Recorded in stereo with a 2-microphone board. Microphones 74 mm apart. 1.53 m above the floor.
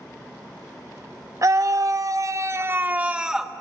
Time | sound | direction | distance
1.4 | a scream | 45° right (ahead or behind) | 0.8 m